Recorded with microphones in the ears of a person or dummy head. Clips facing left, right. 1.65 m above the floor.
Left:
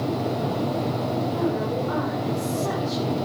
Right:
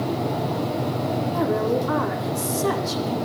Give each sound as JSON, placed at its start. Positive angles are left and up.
{"t": 1.3, "sound": "a woman speaking", "side_deg": -80, "distance_m": 8.5}